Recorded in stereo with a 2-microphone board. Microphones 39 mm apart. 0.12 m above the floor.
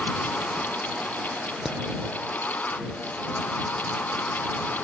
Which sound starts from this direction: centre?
Hammering, at 1.6 s.